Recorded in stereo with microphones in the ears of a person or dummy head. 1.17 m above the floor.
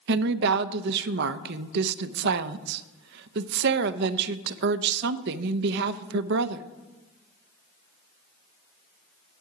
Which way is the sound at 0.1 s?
65° right (ahead or behind).